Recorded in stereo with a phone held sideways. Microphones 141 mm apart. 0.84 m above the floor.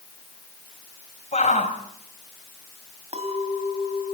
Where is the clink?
55° right (ahead or behind), 4 m.